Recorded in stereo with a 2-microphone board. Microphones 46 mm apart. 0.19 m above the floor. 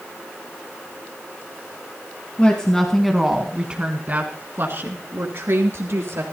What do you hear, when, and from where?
2.4 s a woman speaking: 25° left (ahead or behind), 1.8 m; by 6.2 s 65° right (ahead or behind), 3.5 m